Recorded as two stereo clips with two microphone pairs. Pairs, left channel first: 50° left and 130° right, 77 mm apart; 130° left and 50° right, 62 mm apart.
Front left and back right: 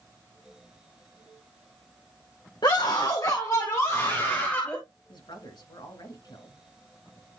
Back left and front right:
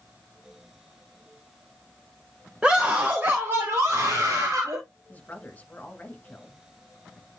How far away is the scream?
About 1.6 m.